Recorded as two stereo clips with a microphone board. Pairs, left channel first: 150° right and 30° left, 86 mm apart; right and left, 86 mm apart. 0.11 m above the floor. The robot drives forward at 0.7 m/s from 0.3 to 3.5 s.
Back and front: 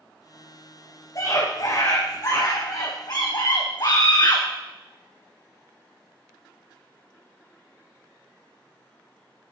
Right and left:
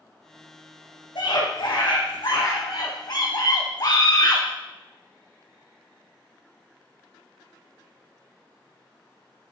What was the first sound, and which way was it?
A scream, 110° right.